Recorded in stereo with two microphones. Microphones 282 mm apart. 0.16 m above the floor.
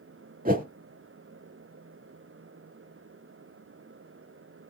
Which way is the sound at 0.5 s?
30° right (ahead or behind).